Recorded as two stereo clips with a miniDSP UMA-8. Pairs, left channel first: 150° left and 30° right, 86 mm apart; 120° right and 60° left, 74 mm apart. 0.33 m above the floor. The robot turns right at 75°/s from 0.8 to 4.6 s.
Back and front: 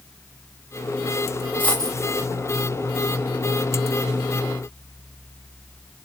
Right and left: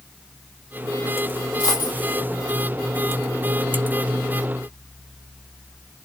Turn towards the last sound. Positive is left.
turn(degrees=85)